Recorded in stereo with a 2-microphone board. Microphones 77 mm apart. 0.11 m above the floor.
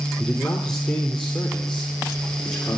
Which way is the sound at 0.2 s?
10° left (ahead or behind).